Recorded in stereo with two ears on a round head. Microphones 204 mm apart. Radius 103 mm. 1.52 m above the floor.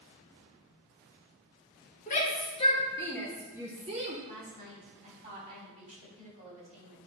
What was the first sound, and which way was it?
A shout, 35° left (ahead or behind).